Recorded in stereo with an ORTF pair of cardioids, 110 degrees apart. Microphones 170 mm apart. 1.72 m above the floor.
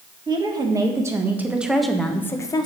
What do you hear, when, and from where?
0.3 s a woman speaking: 30° right, 1.9 m; by 2.6 s 30° left, 1.1 m